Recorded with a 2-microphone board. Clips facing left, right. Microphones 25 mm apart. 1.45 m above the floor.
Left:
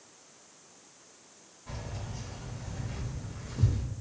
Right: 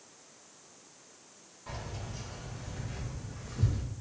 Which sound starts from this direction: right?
Keys jangling, at 1.7 s.